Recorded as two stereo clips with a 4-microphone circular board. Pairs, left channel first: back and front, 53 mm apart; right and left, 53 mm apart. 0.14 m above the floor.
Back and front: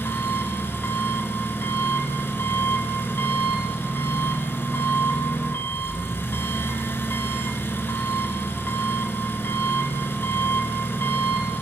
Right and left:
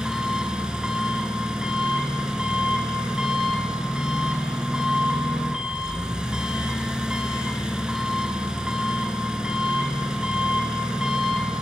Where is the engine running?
160° left, 1.1 m.